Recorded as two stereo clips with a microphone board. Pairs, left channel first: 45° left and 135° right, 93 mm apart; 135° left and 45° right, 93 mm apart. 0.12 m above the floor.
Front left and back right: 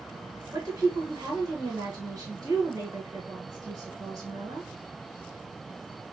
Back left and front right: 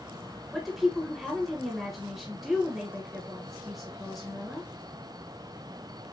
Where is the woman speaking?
135° right, 1.9 m.